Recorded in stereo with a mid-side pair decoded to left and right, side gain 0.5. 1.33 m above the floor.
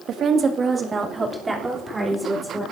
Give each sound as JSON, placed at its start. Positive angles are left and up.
{"t": 0.1, "sound": "a woman speaking", "azimuth_deg": -60, "distance_m": 1.8}